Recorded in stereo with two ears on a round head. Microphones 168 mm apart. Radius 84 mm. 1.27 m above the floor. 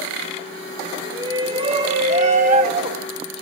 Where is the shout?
20° right (ahead or behind), 3 m; by 3.1 s 50° right (ahead or behind), 3.5 m.